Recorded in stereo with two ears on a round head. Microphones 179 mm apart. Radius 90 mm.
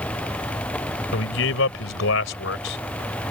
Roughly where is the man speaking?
Left.